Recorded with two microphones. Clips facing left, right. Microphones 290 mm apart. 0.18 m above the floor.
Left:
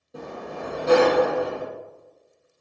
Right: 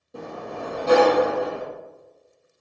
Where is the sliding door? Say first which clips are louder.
Right 1 dB; centre (ahead or behind), 1.3 m.